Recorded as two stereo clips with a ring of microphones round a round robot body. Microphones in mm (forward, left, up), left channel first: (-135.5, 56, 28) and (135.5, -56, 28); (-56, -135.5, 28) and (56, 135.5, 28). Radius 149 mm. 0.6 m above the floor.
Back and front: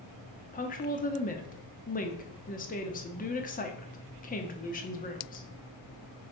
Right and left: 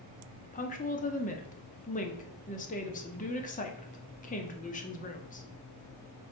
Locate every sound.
0.5 s a woman speaking: 160° right, 1.1 m